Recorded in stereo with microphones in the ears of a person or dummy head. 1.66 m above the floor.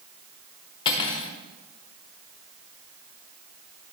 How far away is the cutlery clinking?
About 0.8 m.